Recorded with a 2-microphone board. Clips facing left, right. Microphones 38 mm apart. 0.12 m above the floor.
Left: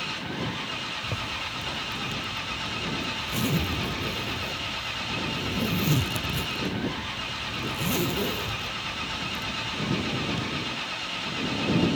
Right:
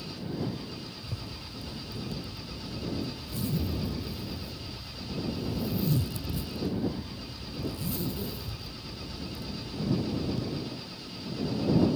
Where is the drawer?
No drawer in this recording.